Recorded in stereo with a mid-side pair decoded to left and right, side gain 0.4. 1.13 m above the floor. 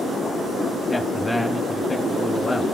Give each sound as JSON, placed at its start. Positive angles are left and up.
{"t": 0.9, "sound": "a man speaking", "azimuth_deg": 15, "distance_m": 1.8}